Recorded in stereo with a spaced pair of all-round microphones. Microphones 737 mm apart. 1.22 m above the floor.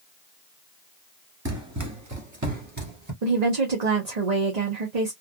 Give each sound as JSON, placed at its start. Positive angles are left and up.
{"t": 1.4, "sound": "running footsteps", "side_deg": -20, "distance_m": 1.2}
{"t": 3.2, "sound": "a woman speaking", "side_deg": -60, "distance_m": 1.0}